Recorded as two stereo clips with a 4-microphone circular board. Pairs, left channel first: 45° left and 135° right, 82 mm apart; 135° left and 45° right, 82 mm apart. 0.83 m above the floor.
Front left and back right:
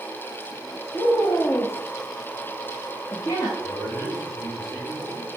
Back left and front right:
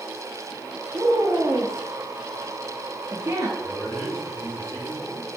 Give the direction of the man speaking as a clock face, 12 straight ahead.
10 o'clock.